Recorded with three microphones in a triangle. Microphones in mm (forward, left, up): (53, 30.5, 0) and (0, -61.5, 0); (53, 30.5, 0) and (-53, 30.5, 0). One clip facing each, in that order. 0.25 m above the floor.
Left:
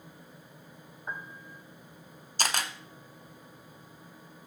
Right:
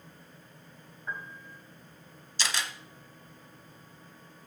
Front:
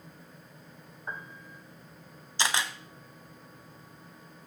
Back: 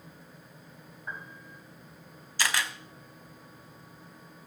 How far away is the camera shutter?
About 1.0 m.